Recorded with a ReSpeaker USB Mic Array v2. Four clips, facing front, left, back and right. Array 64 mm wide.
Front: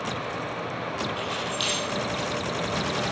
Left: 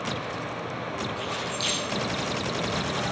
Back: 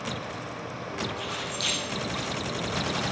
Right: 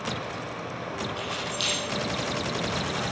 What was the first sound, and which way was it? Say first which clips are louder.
Keys jangling: left 1 dB, front 4 dB; 20° right.